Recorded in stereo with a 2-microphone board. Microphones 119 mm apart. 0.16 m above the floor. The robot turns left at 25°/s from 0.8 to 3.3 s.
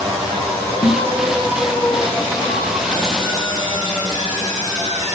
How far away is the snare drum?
About 0.5 m.